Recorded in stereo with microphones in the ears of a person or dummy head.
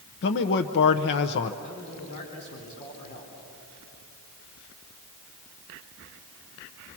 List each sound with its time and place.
0.2 s a man speaking: 55° left (ahead or behind), 0.7 m
1.6 s a man speaking: 35° left (ahead or behind), 3.5 m